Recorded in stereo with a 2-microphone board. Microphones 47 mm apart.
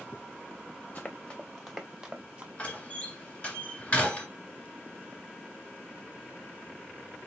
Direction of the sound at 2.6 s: 30° left (ahead or behind).